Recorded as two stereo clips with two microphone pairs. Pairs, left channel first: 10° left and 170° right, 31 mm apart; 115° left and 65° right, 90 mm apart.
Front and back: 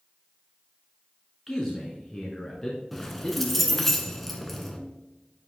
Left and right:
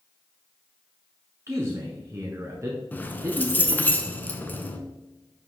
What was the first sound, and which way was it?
A man speaking, 55° right.